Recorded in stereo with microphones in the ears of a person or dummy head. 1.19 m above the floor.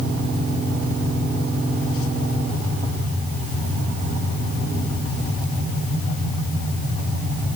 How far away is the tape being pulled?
No tape being pulled in this recording.